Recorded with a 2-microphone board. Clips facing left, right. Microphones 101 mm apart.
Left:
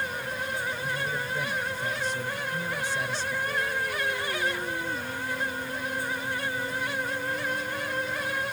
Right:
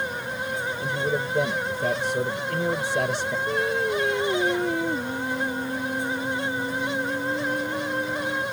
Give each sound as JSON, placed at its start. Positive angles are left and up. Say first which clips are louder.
{"t": 0.8, "sound": "a man speaking", "louder": "right 5 dB", "side_deg": -65}
{"t": 3.5, "sound": "singing", "louder": "right 6 dB", "side_deg": -65}